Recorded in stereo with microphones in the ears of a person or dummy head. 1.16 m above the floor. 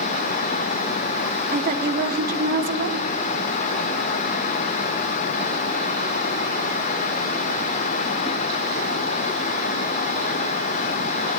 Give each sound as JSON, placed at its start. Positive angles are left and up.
{"t": 1.5, "sound": "a woman speaking", "side_deg": -55, "distance_m": 2.0}